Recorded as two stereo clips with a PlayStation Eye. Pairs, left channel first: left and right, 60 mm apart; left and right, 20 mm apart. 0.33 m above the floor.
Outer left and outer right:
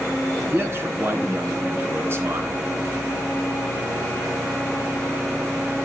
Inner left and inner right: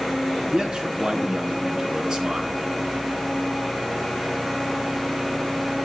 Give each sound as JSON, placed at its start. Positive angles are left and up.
{"t": 0.5, "sound": "a man speaking", "side_deg": -45, "distance_m": 3.5}